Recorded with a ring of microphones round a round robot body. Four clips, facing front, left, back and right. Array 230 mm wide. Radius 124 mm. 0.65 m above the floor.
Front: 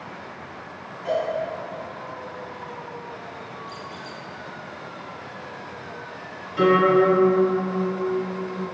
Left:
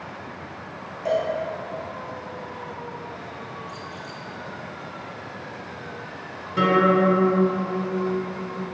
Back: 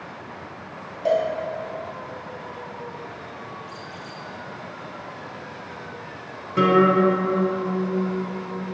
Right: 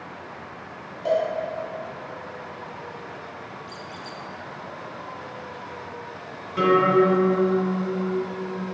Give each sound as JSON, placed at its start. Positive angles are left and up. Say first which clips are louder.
{"t": 1.1, "sound": "a cowbell", "louder": "right 1 dB, back 4 dB", "azimuth_deg": -175, "distance_m": 1.7}
{"t": 3.7, "sound": "a squeak", "louder": "left 1 dB, front 1 dB", "azimuth_deg": -70, "distance_m": 0.7}
{"t": 6.6, "sound": "a guitar", "louder": "right 1 dB, even", "azimuth_deg": 165, "distance_m": 1.7}